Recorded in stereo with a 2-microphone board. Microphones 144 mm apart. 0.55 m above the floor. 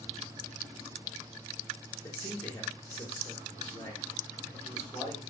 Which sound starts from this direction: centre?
A man speaking, at 2.0 s.